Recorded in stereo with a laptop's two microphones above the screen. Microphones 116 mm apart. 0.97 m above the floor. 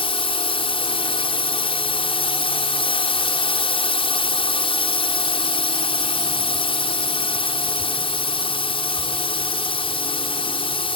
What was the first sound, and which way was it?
A drone, 50° left (ahead or behind).